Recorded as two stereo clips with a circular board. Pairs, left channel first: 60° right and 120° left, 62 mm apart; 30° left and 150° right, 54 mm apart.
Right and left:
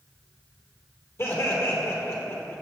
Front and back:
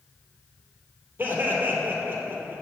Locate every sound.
1.2 s laughter: 100° right, 2.5 m